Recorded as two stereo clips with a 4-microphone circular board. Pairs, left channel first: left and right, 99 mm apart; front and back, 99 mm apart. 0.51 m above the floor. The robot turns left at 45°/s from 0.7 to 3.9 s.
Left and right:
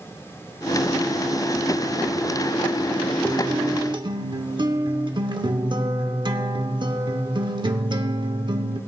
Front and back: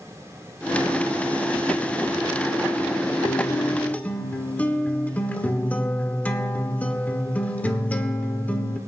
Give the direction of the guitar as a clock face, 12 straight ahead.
1 o'clock.